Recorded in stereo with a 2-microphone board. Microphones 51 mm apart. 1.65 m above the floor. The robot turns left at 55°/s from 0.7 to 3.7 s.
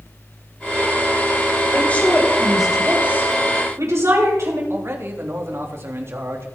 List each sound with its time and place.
1.7 s a woman speaking: 40° left, 8.5 m; by 4.6 s 70° right, 8.5 m
4.7 s a man speaking: 55° right (ahead or behind), 3 m